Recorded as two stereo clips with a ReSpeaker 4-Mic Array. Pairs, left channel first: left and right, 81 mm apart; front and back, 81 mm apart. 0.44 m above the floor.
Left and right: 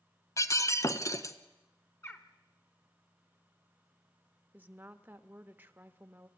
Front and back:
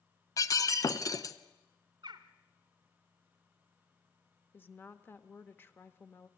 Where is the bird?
150° left, 1.2 m.